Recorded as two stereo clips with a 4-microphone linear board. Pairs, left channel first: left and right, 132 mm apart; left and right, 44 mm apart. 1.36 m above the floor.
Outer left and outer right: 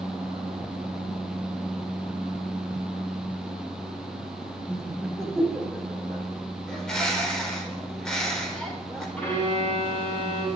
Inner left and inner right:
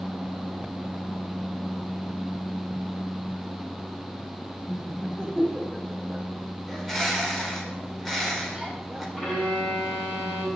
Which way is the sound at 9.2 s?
10° left (ahead or behind).